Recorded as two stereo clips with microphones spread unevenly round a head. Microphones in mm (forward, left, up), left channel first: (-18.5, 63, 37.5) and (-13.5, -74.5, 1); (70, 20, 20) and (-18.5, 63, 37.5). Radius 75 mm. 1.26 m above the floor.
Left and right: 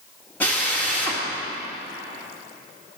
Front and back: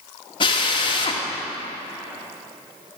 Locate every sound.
0.4 s a drill: 10° left, 1.7 m